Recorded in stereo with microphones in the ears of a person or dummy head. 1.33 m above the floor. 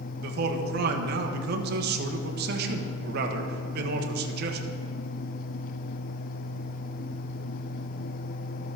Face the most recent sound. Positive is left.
turn(degrees=-60)  # may be behind; listen again after turning